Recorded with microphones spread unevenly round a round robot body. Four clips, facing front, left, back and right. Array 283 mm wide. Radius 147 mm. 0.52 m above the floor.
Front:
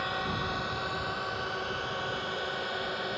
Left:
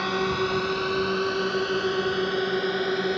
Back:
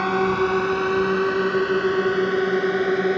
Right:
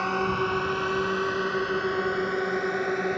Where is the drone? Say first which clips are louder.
Left 1 dB, back 13 dB; 175° left.